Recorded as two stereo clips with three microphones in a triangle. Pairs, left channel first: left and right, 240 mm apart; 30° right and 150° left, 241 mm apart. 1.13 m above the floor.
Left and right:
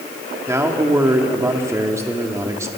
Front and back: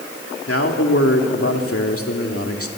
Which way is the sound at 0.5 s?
10° right.